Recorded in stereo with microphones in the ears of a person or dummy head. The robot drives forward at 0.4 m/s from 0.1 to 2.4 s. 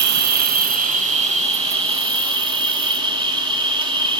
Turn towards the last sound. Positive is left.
turn(degrees=-25)  # may be behind; listen again after turning